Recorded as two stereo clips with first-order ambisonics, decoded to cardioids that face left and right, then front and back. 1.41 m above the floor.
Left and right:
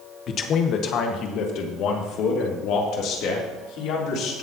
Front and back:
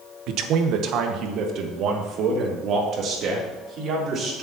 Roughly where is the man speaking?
Behind left.